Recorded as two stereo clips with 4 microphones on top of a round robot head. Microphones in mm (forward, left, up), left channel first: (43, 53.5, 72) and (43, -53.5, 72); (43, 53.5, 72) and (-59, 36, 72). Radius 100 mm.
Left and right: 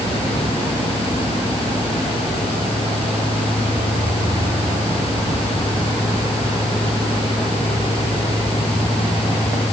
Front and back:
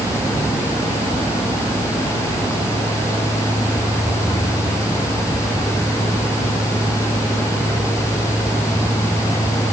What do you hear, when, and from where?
Only background noise.